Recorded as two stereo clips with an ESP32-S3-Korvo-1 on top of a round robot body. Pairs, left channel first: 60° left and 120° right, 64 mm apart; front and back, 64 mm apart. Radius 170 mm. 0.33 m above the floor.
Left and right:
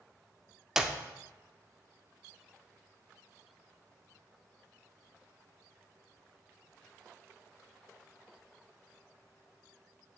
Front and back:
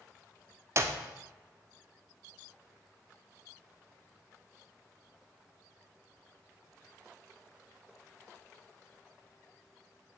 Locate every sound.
0.8 s a clap: 160° left, 0.8 m